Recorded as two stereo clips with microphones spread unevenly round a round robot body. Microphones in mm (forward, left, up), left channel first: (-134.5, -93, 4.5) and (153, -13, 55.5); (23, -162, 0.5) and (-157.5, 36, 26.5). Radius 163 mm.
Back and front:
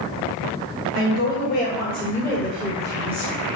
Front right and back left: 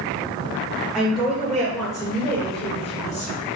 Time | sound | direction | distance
0.9 | a woman speaking | 135° right | 1.9 m